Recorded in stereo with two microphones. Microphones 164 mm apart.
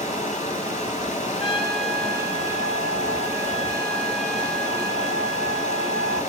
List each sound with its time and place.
0.0 s running water: 45° left (ahead or behind), 2.5 m
1.4 s a trumpet: 35° left (ahead or behind), 4 m